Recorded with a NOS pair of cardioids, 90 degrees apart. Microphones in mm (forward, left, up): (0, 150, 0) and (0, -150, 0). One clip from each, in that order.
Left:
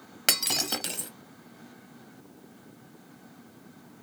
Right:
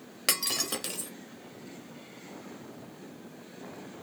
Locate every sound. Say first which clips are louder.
0.3 s breaking glass: left 3 dB; 20° left, 1.0 m